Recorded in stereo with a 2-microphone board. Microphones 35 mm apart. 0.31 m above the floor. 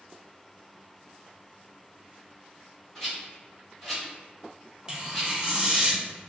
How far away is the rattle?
About 1.7 m.